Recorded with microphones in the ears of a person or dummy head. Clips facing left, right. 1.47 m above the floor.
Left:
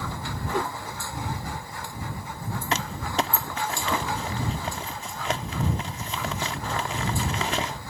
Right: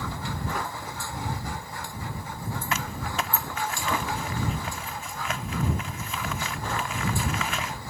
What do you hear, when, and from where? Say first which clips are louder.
0.5 s a whoosh: left 9 dB; 30° left (ahead or behind)
2.7 s crumpling: left 5 dB; 35° left (ahead or behind)